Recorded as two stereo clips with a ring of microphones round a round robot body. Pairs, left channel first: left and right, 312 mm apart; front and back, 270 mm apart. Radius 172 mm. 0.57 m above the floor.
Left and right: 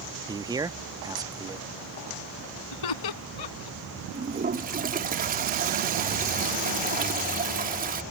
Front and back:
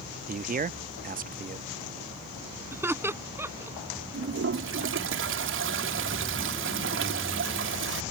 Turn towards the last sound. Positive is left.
turn(degrees=-150)